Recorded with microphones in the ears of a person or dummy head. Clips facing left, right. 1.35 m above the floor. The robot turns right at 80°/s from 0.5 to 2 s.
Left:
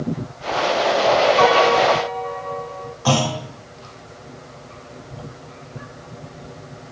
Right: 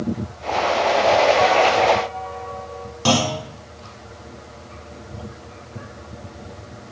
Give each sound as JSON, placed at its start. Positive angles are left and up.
{"t": 1.4, "sound": "a piano", "azimuth_deg": 60, "distance_m": 1.4}
{"t": 3.0, "sound": "a clunk", "side_deg": -50, "distance_m": 3.0}